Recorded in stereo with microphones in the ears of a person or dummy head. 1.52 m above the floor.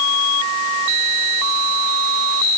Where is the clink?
I don't hear a clink.